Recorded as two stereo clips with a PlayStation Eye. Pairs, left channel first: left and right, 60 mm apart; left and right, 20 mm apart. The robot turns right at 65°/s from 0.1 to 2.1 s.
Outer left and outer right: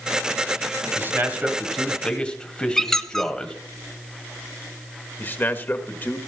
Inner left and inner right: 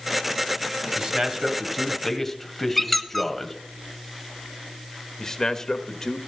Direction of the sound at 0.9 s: 55° right.